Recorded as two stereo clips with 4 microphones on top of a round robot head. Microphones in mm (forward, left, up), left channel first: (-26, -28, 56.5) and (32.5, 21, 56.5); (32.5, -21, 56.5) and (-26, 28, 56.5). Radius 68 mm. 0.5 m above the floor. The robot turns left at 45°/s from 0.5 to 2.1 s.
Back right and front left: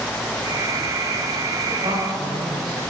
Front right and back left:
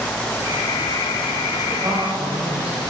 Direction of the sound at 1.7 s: 85° left.